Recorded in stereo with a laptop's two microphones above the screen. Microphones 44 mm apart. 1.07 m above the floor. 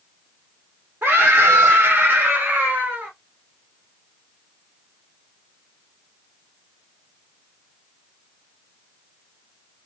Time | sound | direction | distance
1.0 | a scream | 45° right (ahead or behind) | 0.8 m